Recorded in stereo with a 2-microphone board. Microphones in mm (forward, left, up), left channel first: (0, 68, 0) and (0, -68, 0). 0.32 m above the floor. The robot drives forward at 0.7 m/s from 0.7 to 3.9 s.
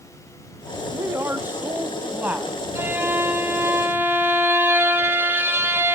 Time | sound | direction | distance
0.9 | a woman speaking | 20° right (ahead or behind) | 1.0 m
2.8 | a violin | 15° right (ahead or behind) | 1.2 m